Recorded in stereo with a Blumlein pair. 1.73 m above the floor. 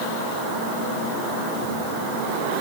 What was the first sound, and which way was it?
Only background noise.